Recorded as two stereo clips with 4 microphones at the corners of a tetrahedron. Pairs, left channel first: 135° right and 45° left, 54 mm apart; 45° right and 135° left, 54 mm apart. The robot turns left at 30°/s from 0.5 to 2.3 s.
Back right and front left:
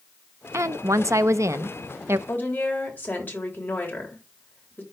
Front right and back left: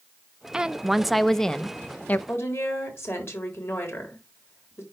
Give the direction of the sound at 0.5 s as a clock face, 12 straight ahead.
10 o'clock.